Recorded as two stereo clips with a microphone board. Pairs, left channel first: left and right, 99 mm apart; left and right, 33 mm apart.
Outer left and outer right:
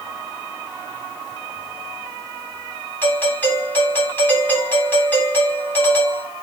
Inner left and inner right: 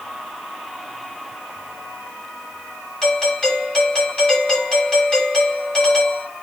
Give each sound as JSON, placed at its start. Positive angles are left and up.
{"t": 3.0, "sound": "a doorbell", "side_deg": 15, "distance_m": 7.5}